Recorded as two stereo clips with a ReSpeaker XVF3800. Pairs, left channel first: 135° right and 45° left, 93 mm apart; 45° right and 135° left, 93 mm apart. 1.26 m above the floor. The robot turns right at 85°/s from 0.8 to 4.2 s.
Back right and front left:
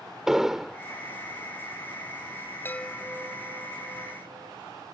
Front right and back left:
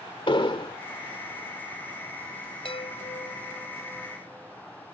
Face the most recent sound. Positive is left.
turn(degrees=65)